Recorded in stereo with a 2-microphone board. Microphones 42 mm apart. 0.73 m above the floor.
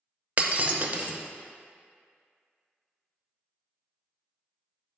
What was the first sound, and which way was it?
Breaking glass, 40° right (ahead or behind).